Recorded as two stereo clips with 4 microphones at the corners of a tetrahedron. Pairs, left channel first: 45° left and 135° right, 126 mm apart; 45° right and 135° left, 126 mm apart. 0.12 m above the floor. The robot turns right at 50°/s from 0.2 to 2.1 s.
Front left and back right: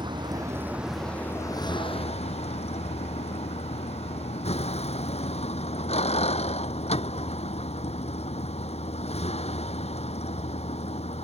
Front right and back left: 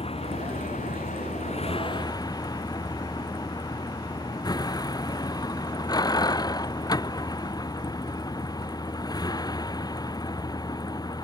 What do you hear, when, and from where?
0.0 s a vehicle: 80° right; by 11.2 s 15° left